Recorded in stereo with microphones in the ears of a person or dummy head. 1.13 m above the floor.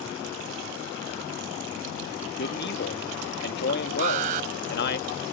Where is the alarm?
40° right (ahead or behind).